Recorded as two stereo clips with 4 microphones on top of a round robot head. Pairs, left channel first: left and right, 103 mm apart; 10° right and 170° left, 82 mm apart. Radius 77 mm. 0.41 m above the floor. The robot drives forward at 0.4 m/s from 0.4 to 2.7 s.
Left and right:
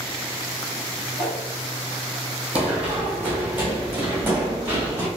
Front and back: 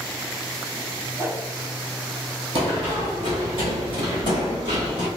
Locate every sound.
1.2 s a whoosh: 175° left, 1.3 m
2.5 s running footsteps: 165° right, 1.1 m; by 5.1 s 160° right, 3.5 m